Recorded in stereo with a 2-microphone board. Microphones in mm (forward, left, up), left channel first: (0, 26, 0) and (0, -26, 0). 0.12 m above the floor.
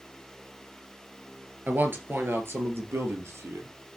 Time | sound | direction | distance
1.7 | a man speaking | 35° right (ahead or behind) | 2.5 m